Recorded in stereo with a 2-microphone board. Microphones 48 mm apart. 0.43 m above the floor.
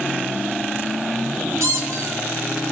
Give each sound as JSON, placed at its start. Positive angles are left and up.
{"t": 1.6, "sound": "a squeak", "side_deg": -85, "distance_m": 1.6}